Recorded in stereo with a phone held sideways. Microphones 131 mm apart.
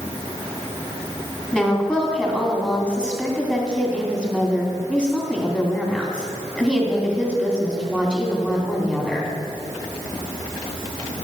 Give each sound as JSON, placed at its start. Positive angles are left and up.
{"t": 1.5, "sound": "a woman speaking", "side_deg": 10, "distance_m": 3.0}